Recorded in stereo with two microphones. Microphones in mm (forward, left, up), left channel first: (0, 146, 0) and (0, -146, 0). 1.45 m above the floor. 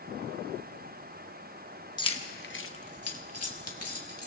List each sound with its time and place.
2.0 s keys jangling: 15° left (ahead or behind), 1.1 m; by 4.3 s 55° left (ahead or behind), 2.5 m